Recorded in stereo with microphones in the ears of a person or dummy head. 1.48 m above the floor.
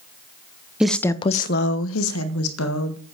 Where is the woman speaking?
Centre (ahead or behind), 0.9 m; by 3.0 s 70° left (ahead or behind), 2 m.